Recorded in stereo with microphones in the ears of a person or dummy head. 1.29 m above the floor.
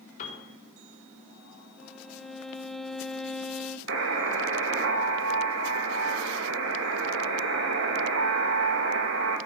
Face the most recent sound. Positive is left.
turn(degrees=-65)  # may be behind; listen again after turning